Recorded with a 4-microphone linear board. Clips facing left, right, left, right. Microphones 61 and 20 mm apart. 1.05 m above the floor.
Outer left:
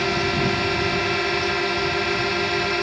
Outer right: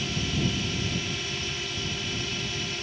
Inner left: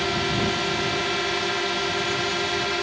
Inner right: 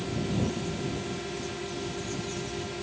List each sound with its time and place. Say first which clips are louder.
0.0 s a drone: outer left 8 dB, inner left 7 dB; 60° left (ahead or behind)